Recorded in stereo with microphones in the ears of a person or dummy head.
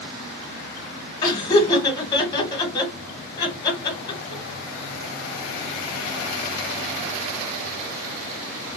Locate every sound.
1.2 s laughter: 20° left (ahead or behind), 1.3 m